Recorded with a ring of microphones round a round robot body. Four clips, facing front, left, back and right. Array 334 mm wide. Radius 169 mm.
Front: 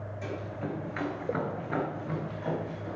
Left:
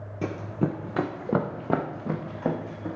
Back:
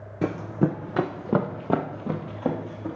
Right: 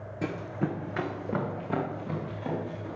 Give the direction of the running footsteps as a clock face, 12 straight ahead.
6 o'clock.